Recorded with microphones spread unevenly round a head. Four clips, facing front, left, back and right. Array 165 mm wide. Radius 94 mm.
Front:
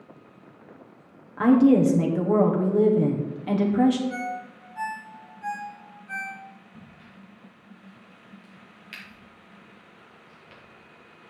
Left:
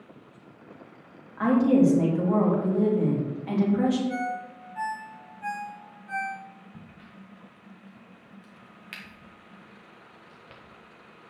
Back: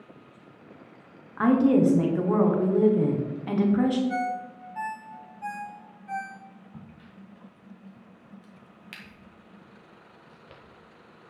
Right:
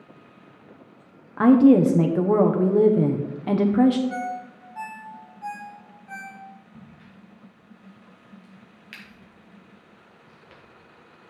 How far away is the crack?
About 1.3 m.